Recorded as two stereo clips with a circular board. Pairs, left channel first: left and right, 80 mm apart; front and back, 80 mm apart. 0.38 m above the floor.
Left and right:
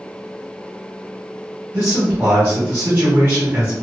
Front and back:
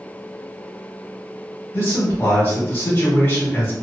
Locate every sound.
1.7 s a man speaking: 45° right, 1.8 m